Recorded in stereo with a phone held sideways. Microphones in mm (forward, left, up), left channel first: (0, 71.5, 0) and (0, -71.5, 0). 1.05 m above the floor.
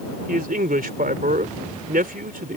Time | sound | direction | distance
0.3 | a man speaking | 80° right | ?